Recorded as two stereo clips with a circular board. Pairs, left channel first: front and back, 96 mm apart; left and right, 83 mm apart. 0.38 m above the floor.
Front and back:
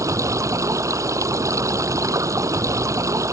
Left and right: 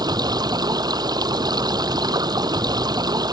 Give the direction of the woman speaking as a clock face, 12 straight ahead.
No woman speaking in this recording.